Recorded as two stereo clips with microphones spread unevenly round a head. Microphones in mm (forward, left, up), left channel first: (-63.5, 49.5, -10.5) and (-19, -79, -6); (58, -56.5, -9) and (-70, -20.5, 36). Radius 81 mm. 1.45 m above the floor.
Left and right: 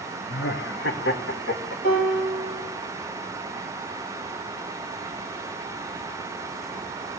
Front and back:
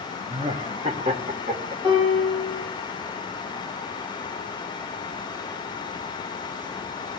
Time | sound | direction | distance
0.3 | laughter | 95° left | 1.2 m
1.8 | a piano | 80° left | 6 m